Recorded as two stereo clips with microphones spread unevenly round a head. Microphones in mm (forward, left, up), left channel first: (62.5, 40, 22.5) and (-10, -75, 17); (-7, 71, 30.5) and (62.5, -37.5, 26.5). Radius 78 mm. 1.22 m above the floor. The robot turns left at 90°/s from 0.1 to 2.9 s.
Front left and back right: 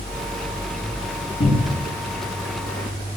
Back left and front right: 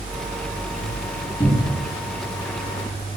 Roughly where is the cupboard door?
Ahead left.